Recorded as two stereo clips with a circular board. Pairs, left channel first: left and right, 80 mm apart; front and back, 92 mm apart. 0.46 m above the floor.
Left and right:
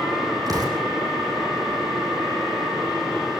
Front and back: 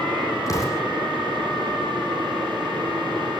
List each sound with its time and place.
0.5 s an explosion: 55° right, 7 m